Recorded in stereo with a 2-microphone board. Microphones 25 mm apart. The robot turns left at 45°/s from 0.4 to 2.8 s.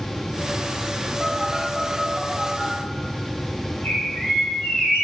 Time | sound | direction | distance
1.2 | a phone buzzing | 45° right (ahead or behind) | 4.5 m
3.8 | a bird | 85° left | 6.5 m